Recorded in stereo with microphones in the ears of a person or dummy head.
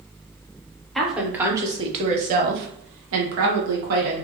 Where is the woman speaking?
Centre (ahead or behind), 1.0 m; by 4.2 s 75° right (ahead or behind), 1.3 m.